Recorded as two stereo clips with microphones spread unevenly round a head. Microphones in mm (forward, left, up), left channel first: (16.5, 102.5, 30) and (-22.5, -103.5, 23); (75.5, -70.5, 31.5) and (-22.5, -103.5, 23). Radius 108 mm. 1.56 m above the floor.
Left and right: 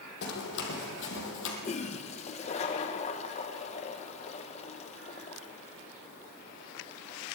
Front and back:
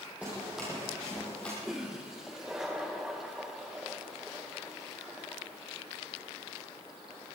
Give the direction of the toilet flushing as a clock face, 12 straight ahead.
8 o'clock.